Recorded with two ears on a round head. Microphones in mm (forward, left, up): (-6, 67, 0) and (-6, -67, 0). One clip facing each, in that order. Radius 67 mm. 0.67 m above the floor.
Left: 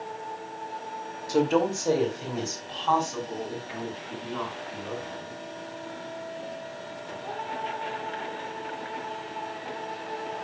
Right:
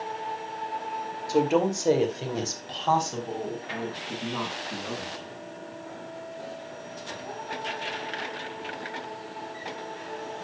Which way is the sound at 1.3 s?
5° right (ahead or behind).